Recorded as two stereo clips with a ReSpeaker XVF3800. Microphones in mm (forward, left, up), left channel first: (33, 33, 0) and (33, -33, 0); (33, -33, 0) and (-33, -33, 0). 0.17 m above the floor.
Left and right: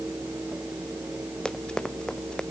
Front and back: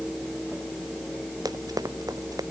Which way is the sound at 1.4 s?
165° left.